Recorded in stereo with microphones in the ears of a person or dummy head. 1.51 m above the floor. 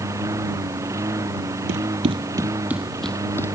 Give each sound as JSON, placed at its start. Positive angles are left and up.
{"t": 0.0, "sound": "a lawn mower", "side_deg": -15}
{"t": 1.7, "sound": "running footsteps", "side_deg": -40}